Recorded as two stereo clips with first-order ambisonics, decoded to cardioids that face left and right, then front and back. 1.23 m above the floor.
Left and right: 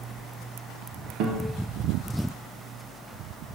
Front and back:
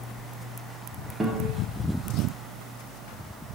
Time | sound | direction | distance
1.2 | a guitar | 105° right | 0.7 m